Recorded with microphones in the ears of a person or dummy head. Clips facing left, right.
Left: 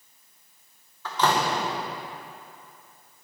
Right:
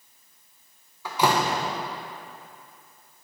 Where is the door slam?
10° right (ahead or behind), 0.8 m.